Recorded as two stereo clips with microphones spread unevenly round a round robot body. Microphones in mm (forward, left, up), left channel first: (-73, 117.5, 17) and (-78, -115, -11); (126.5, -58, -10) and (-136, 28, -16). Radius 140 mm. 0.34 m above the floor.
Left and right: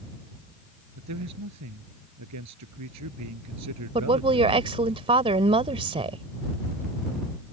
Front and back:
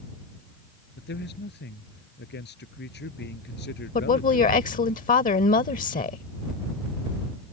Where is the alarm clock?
I don't hear an alarm clock.